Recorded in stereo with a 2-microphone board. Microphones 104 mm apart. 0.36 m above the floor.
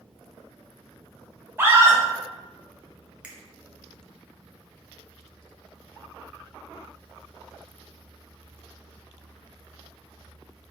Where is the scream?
20° right (ahead or behind), 0.9 m.